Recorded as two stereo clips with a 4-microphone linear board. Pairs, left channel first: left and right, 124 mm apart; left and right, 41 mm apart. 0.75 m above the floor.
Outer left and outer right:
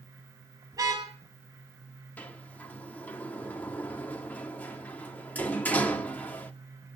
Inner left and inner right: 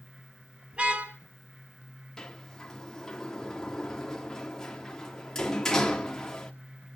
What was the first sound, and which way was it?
A car horn, 30° right (ahead or behind).